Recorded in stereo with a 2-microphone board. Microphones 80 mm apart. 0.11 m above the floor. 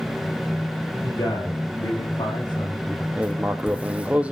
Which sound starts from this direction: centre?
Writing, at 3.1 s.